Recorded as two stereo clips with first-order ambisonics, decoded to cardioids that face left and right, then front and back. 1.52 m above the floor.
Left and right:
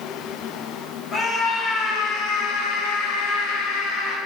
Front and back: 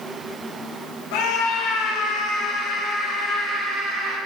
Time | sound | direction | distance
1.1 | a scream | 20° left | 3 m